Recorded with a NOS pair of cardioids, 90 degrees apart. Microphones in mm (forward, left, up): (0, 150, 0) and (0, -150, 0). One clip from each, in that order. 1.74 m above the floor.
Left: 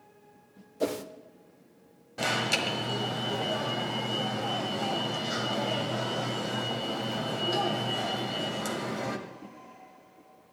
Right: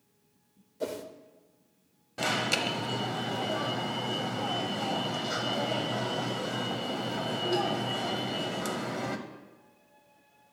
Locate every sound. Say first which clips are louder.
0.8 s a whoosh: left 4 dB; 25° left, 0.6 m
2.2 s an alarm: left 1 dB; straight ahead, 1.1 m